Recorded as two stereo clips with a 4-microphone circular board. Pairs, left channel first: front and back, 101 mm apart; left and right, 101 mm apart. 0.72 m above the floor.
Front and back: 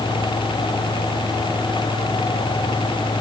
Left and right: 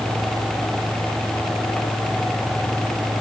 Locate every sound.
Only background noise.